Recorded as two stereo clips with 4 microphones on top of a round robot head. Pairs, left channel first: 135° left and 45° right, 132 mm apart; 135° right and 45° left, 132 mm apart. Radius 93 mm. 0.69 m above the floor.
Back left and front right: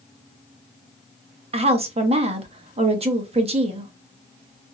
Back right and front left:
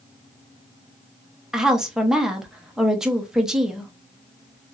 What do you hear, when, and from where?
1.5 s a woman speaking: 40° right, 0.8 m